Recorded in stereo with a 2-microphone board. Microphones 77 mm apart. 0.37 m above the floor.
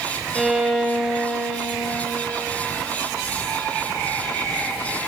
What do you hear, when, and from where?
0.3 s a violin: 5° right (ahead or behind), 0.7 m